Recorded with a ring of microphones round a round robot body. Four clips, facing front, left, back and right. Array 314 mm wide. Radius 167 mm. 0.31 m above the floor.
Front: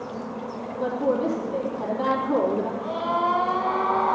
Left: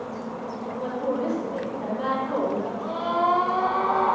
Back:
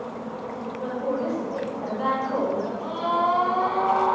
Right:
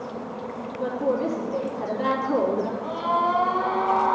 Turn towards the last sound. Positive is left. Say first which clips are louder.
# left 2 dB, back 1 dB
turn(degrees=75)